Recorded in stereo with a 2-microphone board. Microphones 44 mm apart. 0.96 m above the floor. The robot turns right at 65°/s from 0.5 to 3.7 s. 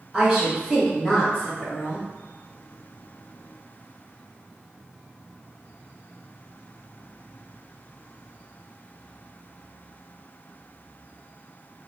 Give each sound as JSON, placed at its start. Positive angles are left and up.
{"t": 0.1, "sound": "a woman speaking", "azimuth_deg": -25, "distance_m": 1.1}